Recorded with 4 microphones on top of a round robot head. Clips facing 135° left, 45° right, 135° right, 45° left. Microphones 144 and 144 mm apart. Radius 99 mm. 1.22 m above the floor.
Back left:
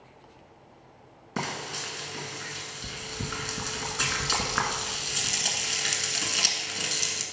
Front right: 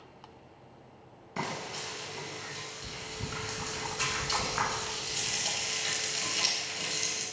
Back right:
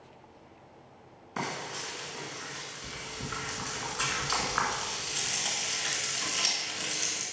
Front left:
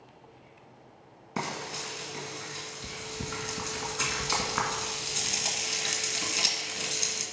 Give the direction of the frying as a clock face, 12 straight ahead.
9 o'clock.